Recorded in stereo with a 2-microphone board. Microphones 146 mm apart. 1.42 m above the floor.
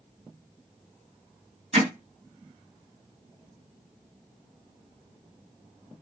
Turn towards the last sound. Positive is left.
turn(degrees=-50)  # may be behind; listen again after turning